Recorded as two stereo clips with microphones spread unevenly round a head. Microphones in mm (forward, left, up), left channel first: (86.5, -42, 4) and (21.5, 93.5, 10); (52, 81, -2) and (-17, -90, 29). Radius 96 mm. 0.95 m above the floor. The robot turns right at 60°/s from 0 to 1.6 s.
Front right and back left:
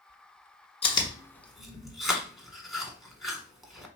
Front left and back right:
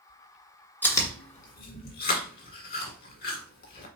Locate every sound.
0.8 s chewing: 20° right, 1.4 m; by 3.9 s 30° left, 1.4 m